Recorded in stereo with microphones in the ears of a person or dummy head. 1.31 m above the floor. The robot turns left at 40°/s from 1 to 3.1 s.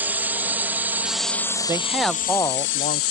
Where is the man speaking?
165° right; by 3.0 s 140° left.